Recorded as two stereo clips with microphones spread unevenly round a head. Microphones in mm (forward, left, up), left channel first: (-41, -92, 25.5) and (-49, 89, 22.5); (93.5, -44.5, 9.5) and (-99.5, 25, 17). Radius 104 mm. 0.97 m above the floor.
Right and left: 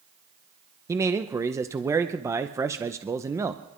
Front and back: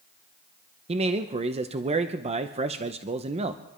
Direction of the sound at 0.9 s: 145° left.